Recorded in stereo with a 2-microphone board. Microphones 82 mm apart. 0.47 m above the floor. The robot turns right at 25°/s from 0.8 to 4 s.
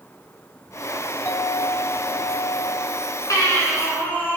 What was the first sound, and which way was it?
A clink, 30° left.